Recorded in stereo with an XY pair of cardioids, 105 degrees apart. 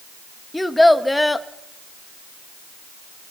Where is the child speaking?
10° left, 1.4 m.